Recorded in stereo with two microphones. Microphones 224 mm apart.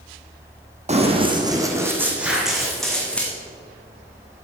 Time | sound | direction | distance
0.9 | running footsteps | 30° right (ahead or behind) | 1.4 m
2.2 | an explosion | 5° right (ahead or behind) | 2.5 m